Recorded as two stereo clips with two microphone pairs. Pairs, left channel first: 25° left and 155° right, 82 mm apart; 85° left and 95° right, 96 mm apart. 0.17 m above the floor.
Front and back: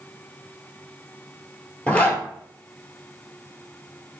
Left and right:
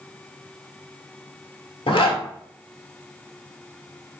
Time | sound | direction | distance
1.9 | a zipper | 95° left | 0.8 m